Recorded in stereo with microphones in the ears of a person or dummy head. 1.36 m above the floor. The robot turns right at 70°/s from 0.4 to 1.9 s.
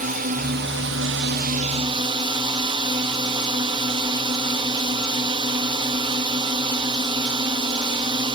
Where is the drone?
135° right; by 8.3 s 30° right.